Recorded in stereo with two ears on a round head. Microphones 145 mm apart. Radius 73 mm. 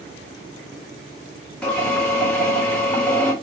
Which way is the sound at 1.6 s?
5° left (ahead or behind).